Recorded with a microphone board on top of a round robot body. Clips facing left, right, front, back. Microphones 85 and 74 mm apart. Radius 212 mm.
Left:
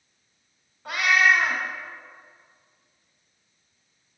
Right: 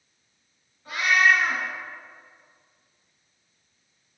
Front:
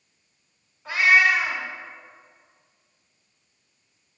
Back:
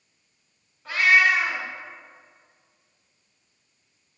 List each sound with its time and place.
0.8 s a cat meowing: 85° left, 1.9 m